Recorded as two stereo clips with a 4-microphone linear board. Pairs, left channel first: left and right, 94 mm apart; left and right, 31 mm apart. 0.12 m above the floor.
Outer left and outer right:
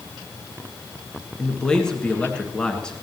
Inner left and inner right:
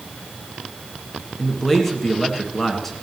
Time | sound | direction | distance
1.4 | a man speaking | 10° left (ahead or behind) | 1.6 m